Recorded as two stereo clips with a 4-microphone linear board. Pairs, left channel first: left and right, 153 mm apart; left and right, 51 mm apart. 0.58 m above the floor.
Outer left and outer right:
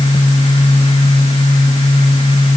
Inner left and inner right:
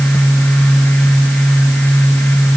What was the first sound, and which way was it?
Only background noise.